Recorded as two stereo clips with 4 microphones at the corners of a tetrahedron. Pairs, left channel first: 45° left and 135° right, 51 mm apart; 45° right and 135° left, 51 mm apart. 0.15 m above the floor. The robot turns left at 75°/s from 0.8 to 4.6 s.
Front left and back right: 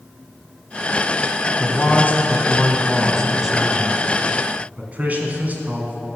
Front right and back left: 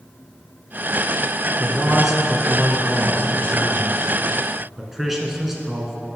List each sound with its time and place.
1.6 s a man speaking: 85° left, 1.5 m; by 6.0 s 145° right, 1.5 m